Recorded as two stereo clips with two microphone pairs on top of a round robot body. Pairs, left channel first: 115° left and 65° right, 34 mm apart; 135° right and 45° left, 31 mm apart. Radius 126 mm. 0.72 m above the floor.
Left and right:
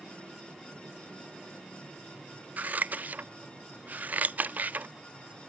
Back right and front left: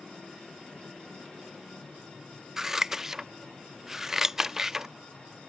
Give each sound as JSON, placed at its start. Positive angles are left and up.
{"t": 2.6, "sound": "scissors", "azimuth_deg": -30}